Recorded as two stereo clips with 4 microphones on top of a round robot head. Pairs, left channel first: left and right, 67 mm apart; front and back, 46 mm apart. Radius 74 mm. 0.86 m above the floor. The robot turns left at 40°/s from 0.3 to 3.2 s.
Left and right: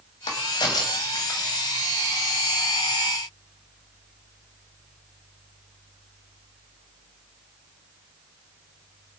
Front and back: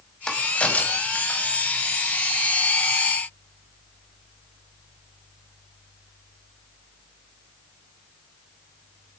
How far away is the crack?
About 2.5 m.